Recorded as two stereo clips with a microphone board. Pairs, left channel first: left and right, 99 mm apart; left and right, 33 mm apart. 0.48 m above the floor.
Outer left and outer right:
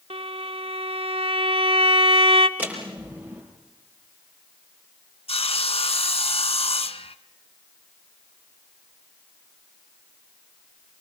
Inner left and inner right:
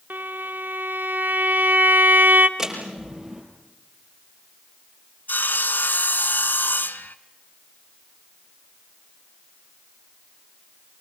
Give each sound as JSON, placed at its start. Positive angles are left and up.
{"t": 0.1, "sound": "a violin", "side_deg": -70, "distance_m": 0.9}
{"t": 2.6, "sound": "a door slam", "side_deg": -15, "distance_m": 6.5}
{"t": 5.3, "sound": "sawing", "side_deg": 75, "distance_m": 0.9}